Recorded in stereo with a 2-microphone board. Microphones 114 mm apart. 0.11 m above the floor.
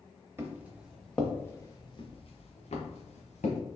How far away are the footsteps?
About 1.3 m.